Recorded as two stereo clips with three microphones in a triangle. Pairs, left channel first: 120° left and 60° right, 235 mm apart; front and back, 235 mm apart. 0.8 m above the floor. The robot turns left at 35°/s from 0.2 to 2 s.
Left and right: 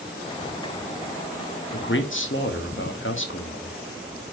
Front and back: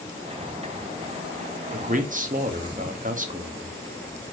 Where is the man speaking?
140° left, 0.8 m; by 3.8 s 135° left, 0.8 m.